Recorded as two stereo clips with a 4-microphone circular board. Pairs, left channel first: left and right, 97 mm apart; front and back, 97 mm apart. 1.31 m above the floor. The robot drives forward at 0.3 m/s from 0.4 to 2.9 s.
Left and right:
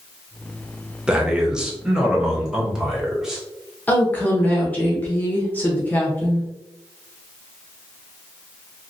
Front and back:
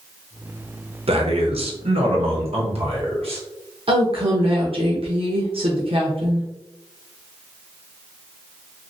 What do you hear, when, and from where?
1.1 s a man speaking: 170° right, 0.7 m; by 3.4 s 175° right, 1.3 m
3.9 s a woman speaking: 160° left, 0.9 m